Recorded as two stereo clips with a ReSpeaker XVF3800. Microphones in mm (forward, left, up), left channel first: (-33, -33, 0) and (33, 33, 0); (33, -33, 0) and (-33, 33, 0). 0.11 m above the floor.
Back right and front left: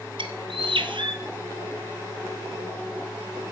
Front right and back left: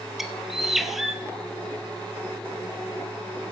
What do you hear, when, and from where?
0.2 s a bird: 50° left, 0.9 m